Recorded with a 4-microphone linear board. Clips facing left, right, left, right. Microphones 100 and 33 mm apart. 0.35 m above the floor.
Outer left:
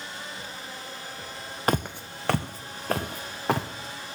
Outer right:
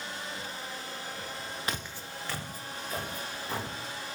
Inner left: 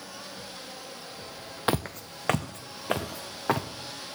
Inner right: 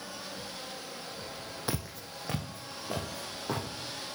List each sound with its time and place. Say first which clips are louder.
1.7 s footsteps: outer left 15 dB, inner left 10 dB; 50° left (ahead or behind), 0.5 m; by 3.7 s 70° left (ahead or behind), 1.9 m